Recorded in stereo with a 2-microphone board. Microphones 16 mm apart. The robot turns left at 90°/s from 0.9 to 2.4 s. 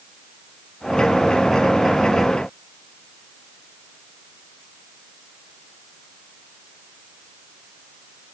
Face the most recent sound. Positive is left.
No sound to turn to.